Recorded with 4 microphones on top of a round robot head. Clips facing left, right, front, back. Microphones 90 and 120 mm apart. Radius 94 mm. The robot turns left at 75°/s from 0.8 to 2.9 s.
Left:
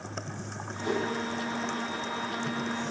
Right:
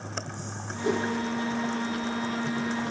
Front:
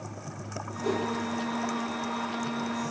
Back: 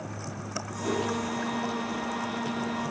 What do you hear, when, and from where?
0.8 s a whoosh: 55° right, 5 m; by 1.0 s 70° right, 5 m